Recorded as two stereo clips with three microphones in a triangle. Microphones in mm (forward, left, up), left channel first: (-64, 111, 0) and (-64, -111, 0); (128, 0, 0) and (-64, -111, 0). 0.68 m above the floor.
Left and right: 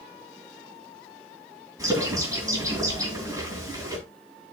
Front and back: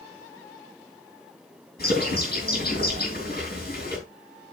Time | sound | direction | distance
1.8 | a bird | 15° right | 8.5 m